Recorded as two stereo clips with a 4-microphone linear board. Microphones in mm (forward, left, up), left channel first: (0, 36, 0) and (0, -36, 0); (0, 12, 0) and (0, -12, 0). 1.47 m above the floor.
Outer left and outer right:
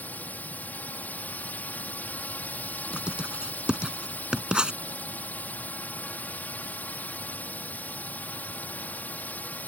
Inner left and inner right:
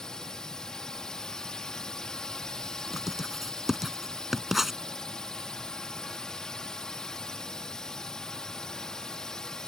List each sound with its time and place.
0.0 s a drone: 25° left (ahead or behind)
2.9 s writing: 15° right (ahead or behind)